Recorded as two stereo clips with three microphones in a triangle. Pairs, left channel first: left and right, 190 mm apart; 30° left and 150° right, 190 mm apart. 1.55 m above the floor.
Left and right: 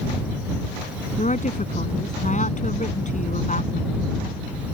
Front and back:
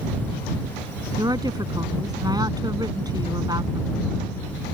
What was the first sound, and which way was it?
A woman speaking, 140° left.